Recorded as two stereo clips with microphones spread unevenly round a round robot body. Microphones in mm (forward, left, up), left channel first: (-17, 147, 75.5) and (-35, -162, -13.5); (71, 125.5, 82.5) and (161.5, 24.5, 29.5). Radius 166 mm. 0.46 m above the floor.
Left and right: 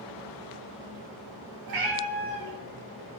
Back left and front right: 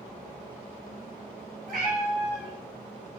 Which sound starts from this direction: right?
A cat meowing, at 1.7 s.